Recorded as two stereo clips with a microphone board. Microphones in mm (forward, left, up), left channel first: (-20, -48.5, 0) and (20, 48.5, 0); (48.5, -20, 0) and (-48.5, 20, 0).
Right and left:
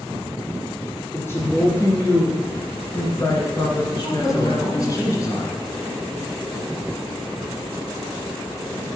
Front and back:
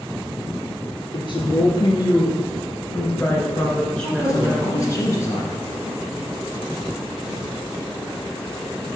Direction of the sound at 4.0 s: 70° right.